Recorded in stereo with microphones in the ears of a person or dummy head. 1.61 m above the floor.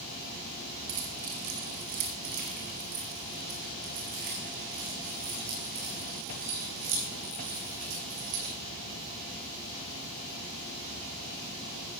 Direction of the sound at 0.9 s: 55° right (ahead or behind).